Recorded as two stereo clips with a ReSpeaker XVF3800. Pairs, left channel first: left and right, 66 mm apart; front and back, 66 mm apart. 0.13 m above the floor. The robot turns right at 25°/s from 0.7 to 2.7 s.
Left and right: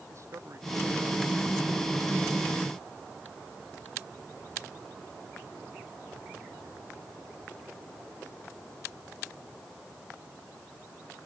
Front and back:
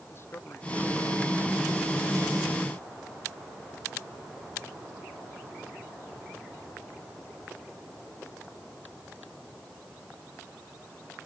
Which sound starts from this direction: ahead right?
A man speaking, at 0.1 s.